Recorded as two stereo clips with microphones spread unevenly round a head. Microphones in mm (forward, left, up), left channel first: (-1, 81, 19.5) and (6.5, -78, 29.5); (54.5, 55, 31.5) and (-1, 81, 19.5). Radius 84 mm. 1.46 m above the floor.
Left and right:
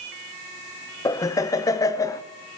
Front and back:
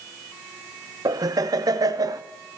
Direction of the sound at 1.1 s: 160° left.